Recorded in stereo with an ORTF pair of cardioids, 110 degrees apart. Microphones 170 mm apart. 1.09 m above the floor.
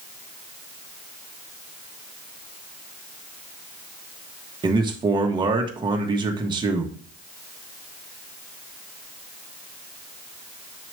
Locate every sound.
4.6 s a man speaking: 30° right, 1.4 m